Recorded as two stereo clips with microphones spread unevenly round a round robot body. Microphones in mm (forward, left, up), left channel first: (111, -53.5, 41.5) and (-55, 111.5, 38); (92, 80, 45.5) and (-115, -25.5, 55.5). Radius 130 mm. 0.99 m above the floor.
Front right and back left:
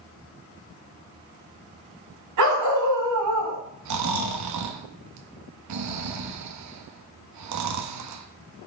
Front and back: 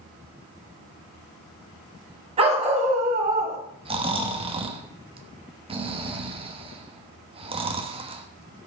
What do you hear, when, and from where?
2.4 s a dog barking: 145° left, 3 m; by 3.6 s 160° left, 3 m
3.9 s snoring: 140° left, 1.1 m